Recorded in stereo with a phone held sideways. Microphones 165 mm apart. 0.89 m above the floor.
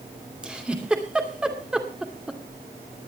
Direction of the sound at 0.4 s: 5° right (ahead or behind).